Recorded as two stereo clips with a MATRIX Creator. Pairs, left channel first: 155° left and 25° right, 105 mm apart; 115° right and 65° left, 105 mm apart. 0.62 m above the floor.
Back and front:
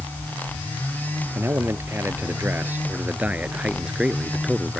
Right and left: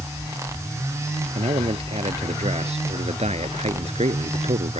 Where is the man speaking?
45° left; by 4.8 s 65° left.